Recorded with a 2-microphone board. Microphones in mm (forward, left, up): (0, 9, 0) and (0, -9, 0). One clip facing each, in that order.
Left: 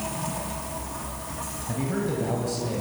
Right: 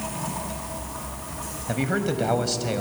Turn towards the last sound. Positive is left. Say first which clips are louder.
# right 3 dB
turn(degrees=-50)  # may be behind; listen again after turning